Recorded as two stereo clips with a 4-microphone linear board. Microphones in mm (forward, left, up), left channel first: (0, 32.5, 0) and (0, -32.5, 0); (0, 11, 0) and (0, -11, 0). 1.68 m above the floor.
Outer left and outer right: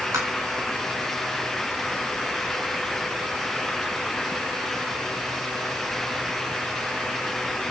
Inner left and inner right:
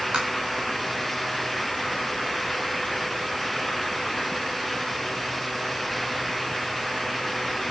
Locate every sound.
0.1 s tapping: 60° right (ahead or behind), 7.5 m